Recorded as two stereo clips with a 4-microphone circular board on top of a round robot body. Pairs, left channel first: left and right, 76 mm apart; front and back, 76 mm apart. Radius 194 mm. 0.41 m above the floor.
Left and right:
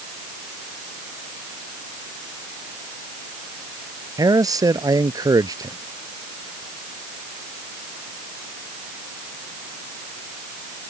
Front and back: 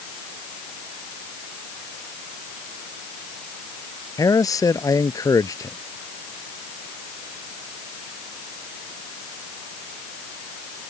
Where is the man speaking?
45° right.